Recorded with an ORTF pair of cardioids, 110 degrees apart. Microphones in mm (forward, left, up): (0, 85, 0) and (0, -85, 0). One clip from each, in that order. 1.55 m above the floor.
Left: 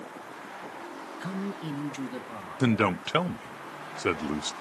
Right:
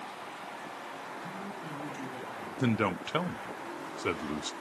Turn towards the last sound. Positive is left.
turn(degrees=20)